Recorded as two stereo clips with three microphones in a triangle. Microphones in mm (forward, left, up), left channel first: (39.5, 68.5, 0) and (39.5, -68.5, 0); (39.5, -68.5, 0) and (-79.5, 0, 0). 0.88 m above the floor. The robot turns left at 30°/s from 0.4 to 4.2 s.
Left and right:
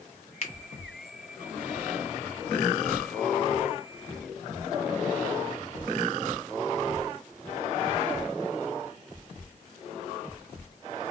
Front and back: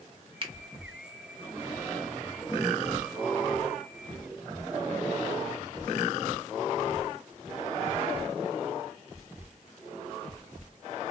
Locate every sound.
0.4 s a finger snap: 110° left, 0.6 m; by 0.5 s 105° left, 0.6 m